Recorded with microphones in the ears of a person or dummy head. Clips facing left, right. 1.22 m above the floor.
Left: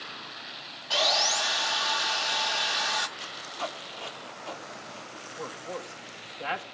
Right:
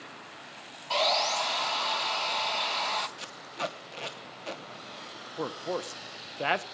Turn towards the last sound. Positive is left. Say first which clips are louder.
# right 5 dB
turn(degrees=-65)  # may be behind; listen again after turning